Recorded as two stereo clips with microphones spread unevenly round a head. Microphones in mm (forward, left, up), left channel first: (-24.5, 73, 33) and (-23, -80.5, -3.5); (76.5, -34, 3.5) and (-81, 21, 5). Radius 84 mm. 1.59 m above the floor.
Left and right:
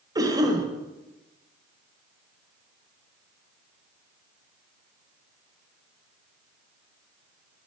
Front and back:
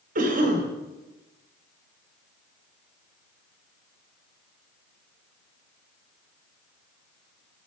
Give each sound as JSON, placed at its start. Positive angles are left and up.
{"t": 0.1, "sound": "a cough", "azimuth_deg": -155, "distance_m": 1.4}